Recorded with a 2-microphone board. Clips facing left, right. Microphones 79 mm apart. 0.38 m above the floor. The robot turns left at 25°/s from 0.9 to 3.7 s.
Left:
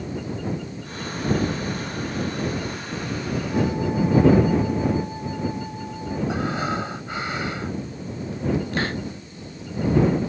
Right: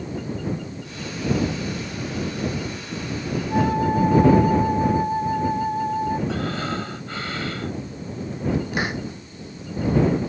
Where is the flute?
45° right (ahead or behind); by 6.2 s 50° right (ahead or behind).